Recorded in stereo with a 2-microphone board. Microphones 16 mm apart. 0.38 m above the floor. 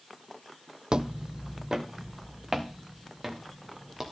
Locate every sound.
0.9 s footsteps: 70° right (ahead or behind), 0.8 m; by 4.0 s 15° right (ahead or behind), 4 m